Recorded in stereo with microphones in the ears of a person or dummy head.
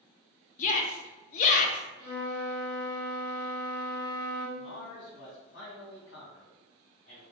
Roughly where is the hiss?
I don't hear a hiss.